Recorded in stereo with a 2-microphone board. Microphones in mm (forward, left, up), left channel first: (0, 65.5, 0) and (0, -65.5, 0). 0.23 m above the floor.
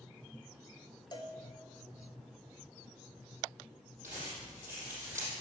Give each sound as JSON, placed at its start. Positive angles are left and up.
{"t": 1.1, "sound": "a cowbell", "side_deg": 35, "distance_m": 0.8}
{"t": 4.0, "sound": "crumpling", "side_deg": -15, "distance_m": 3.5}